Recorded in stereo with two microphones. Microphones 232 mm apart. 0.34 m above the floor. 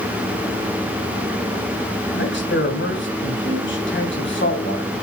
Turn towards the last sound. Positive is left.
turn(degrees=55)  # may be behind; listen again after turning